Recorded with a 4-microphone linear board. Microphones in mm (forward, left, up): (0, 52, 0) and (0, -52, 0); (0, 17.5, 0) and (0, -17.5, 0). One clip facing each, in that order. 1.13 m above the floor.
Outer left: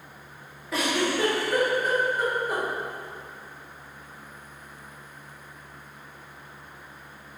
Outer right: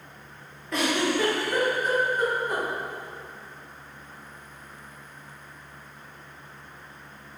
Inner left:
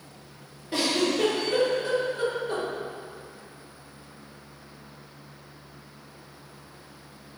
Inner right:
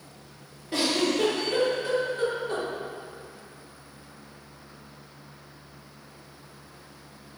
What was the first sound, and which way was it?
A giggle, 5° left (ahead or behind).